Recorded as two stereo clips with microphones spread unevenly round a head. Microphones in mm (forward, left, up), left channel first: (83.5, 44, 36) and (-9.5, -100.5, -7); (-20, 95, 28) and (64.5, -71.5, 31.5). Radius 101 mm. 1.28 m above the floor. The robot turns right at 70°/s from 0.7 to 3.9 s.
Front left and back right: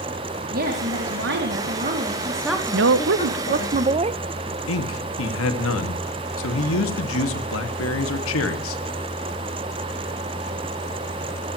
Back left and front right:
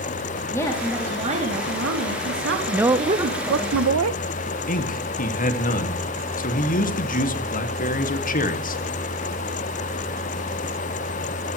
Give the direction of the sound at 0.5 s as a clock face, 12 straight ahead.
6 o'clock.